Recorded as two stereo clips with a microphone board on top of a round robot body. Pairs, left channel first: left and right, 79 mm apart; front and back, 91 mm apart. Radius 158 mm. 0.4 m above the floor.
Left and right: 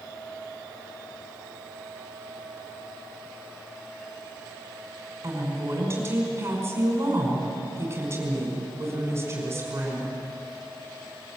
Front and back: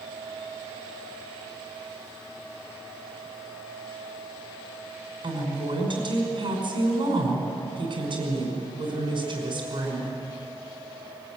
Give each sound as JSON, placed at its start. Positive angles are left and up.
{"t": 5.2, "sound": "a woman speaking", "azimuth_deg": -150, "distance_m": 5.5}